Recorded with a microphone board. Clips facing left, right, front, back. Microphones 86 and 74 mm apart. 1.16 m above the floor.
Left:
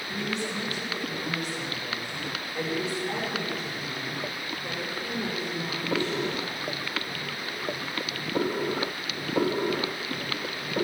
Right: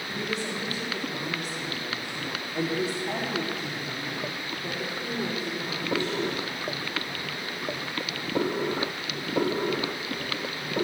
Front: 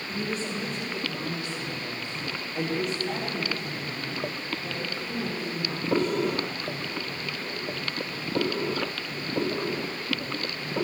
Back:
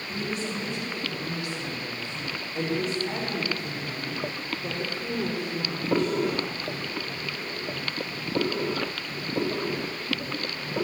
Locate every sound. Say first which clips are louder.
0.1 s a woman speaking: even, even; 40° right, 4.5 m; by 6.6 s 160° right, 5.5 m